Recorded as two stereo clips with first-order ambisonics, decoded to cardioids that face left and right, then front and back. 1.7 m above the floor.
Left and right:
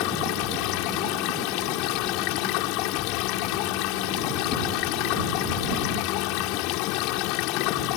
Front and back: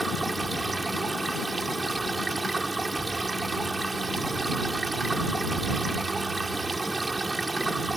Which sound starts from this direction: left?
Running water, at 0.0 s.